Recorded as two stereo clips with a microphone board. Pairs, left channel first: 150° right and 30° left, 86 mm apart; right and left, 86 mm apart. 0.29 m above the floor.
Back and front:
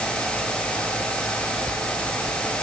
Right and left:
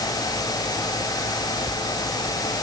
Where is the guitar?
No guitar in this recording.